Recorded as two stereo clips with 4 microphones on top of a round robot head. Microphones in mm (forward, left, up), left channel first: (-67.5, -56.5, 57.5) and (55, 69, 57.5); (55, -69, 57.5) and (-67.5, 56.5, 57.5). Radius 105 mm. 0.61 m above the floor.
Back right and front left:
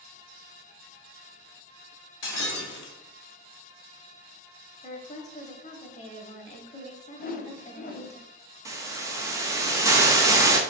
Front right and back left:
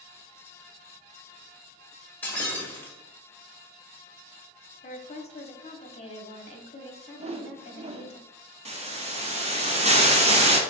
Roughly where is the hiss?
Left.